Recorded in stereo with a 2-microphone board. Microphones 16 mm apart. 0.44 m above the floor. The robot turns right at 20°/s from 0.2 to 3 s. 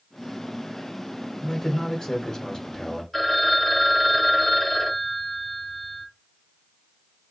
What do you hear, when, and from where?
1.4 s a man speaking: 80° left, 1.1 m; by 3.0 s 115° left, 1.1 m
3.1 s a phone ringing: 5° left (ahead or behind), 1.0 m